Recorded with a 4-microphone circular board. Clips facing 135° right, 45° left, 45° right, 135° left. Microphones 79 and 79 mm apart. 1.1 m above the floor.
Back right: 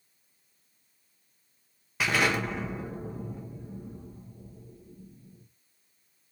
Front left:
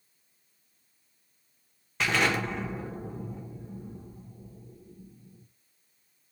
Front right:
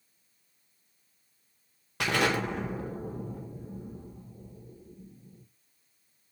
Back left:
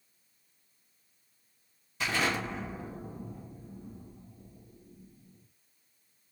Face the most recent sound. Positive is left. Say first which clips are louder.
# even, front right 4 dB
turn(degrees=-50)